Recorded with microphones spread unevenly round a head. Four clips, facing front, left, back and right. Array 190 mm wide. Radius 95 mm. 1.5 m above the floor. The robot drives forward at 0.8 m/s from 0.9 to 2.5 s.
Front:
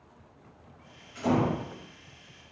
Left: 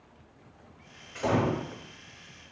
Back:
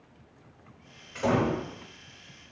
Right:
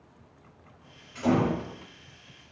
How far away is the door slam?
About 3.5 m.